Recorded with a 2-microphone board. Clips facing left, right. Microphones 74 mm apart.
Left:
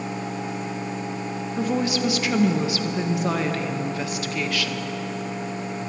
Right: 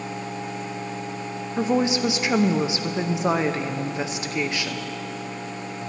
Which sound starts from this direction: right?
A woman speaking, at 1.6 s.